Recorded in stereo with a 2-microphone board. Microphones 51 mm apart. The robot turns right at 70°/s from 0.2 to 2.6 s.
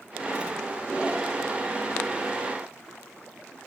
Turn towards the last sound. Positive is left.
No sound to turn to.